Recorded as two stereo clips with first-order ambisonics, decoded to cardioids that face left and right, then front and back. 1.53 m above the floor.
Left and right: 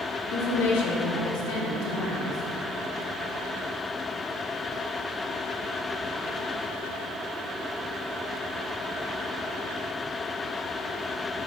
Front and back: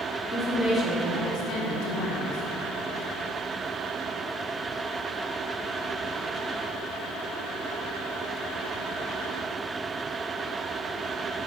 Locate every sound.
0.3 s a woman speaking: 100° left, 1.3 m; by 2.4 s 35° left, 1.9 m